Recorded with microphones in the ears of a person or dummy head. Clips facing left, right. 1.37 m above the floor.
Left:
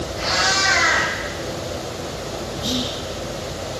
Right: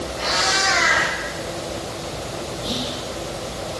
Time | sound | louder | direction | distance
0.2 | a cat meowing | even | 35° left (ahead or behind) | 1.7 m
2.6 | whispering | left 4 dB | 80° left | 0.7 m